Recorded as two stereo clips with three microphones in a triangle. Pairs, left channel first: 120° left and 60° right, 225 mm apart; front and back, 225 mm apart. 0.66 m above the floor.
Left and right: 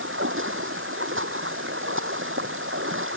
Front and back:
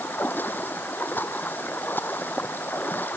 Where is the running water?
80° right.